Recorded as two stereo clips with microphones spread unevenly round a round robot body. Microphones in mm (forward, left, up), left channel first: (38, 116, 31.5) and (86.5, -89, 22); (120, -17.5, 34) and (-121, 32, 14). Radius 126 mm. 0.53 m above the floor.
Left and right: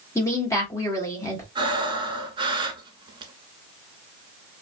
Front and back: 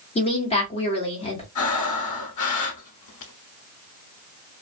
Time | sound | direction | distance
0.1 | a woman speaking | 35° left | 1.4 m
1.6 | breathing | 10° right | 1.0 m